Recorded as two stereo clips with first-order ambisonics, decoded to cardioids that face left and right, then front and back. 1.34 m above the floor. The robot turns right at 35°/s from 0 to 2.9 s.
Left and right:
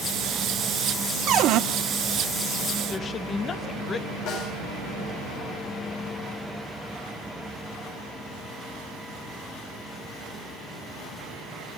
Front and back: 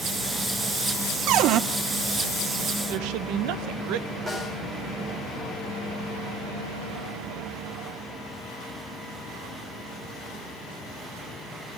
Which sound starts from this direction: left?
A snare drum, at 4.3 s.